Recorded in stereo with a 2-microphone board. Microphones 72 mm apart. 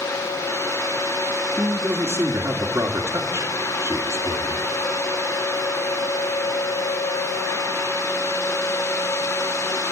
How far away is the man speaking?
About 1.7 m.